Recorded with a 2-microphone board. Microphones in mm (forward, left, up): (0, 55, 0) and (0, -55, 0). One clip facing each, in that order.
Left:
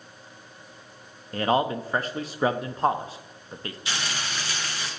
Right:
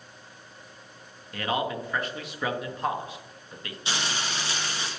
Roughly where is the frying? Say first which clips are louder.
Right 2 dB; right.